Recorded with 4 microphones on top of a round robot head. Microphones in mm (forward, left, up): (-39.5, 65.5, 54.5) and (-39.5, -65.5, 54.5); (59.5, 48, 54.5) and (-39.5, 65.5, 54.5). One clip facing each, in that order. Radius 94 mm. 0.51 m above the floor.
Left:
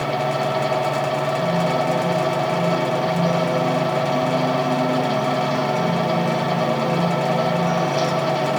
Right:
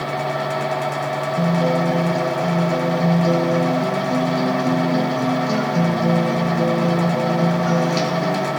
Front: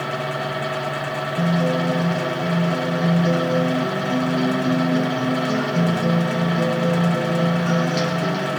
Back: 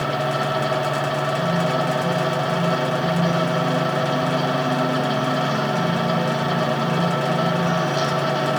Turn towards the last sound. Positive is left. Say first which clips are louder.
# right 1 dB, even
turn(degrees=-60)